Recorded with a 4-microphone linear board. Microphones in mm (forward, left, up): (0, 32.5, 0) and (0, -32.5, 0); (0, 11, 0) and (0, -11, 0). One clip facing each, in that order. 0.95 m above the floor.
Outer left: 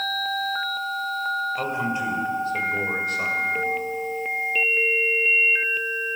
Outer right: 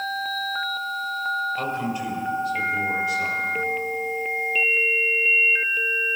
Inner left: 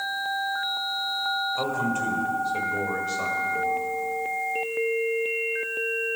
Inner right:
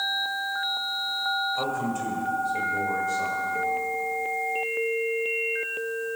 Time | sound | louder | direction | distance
1.6 | a man speaking | outer left 1 dB, inner left 2 dB | 15° left (ahead or behind) | 3 m